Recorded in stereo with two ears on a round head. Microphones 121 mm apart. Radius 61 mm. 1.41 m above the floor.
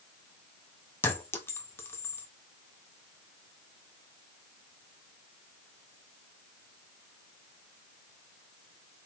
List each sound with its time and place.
1.0 s a clink: 15° left (ahead or behind), 0.8 m